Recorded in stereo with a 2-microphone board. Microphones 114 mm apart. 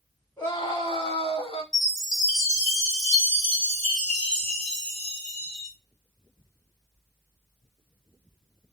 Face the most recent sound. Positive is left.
turn(degrees=5)  # may be behind; listen again after turning